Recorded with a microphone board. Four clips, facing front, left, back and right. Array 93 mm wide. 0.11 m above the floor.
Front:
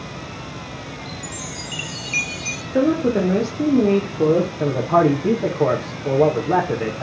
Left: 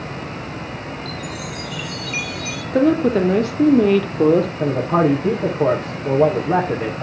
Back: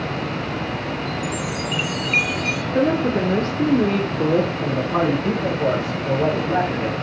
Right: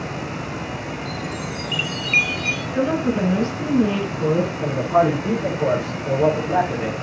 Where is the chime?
130° right, 1.5 m.